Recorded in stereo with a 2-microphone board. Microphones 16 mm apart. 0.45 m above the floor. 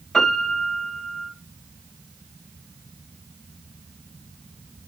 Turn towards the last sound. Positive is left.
turn(degrees=60)  # may be behind; listen again after turning